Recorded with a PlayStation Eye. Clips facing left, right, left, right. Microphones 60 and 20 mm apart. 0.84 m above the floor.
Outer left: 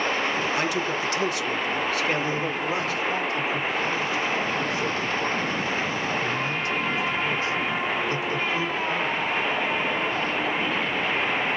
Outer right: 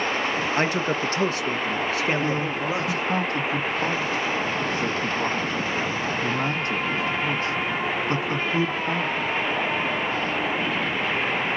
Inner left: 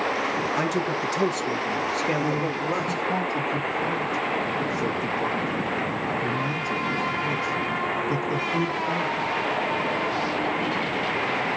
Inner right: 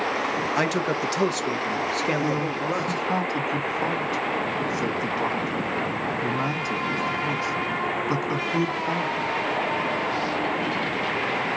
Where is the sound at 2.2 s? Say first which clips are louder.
Outer right 1 dB, even; 45° right (ahead or behind), 1.4 m.